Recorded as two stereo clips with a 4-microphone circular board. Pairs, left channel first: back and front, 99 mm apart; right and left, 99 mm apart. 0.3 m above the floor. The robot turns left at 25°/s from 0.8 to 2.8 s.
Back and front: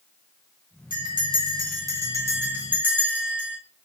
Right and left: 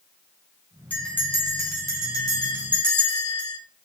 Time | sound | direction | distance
0.9 | a bell | 20° right | 1.8 m